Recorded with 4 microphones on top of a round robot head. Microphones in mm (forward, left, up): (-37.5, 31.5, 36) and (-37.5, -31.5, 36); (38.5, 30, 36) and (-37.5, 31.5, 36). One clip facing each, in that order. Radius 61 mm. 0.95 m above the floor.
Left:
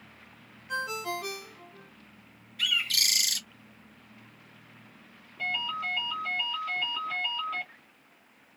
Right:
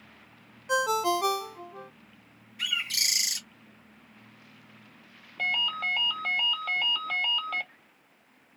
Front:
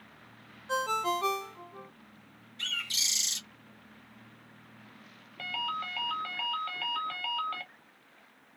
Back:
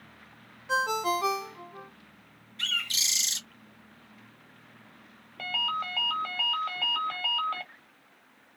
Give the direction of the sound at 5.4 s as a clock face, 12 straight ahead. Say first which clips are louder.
Right 3 dB, back 3 dB; 4 o'clock.